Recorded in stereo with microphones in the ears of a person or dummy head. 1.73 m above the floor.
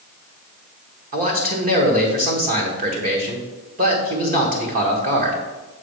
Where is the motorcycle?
No motorcycle in this recording.